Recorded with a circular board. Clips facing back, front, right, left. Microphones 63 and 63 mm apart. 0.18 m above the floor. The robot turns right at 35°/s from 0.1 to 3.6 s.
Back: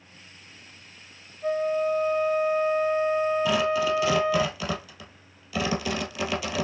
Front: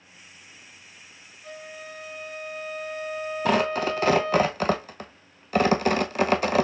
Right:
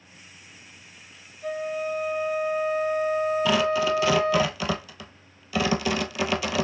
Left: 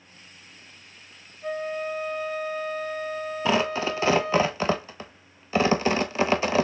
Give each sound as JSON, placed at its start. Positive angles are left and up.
{"t": 1.4, "sound": "a flute", "azimuth_deg": 170, "distance_m": 0.8}
{"t": 3.5, "sound": "tearing paper", "azimuth_deg": 35, "distance_m": 0.6}